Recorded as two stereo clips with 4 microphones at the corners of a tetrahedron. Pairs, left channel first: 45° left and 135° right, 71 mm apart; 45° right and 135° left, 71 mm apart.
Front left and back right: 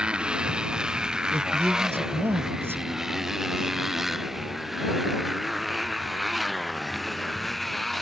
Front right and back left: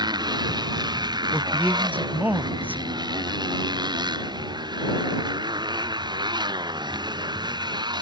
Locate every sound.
0.0 s a motorcycle: 150° left; by 8.0 s 135° left
1.3 s a man speaking: 175° right